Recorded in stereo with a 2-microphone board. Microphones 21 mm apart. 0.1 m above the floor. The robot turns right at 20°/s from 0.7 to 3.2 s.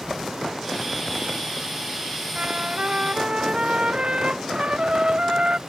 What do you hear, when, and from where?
2.4 s a trumpet: 70° right (ahead or behind); by 5.6 s 55° right (ahead or behind)